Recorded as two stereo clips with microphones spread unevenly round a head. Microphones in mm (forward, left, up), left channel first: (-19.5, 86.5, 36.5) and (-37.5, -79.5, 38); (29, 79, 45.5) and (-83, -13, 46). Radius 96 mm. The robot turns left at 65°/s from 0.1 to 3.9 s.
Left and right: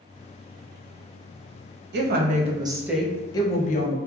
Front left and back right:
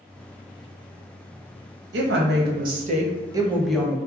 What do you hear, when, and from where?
1.9 s a woman speaking: 115° right, 0.6 m; by 4.0 s 115° left, 0.6 m